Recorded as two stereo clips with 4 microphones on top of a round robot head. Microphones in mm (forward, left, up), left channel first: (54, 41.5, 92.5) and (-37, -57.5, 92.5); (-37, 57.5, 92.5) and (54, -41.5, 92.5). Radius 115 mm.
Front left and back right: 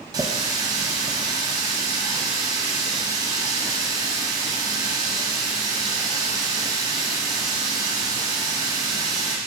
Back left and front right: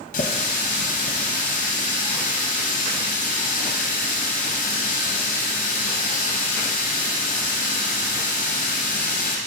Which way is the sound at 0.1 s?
160° left.